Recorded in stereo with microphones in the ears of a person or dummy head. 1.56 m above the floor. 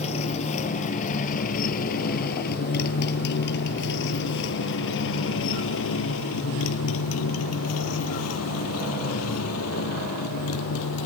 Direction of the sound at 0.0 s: 40° left (ahead or behind).